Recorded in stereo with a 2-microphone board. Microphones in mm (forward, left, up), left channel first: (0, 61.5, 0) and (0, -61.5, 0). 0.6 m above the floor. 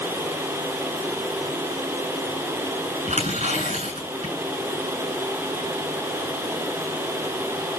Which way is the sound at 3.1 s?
60° right (ahead or behind).